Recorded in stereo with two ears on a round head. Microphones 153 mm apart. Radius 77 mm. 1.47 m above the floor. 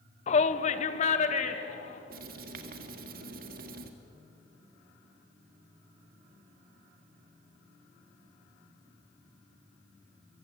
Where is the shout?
40° left (ahead or behind), 0.7 m; by 2.0 s 45° left (ahead or behind), 2.5 m.